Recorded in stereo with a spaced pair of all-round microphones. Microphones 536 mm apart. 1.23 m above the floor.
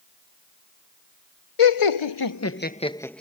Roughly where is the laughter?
Left.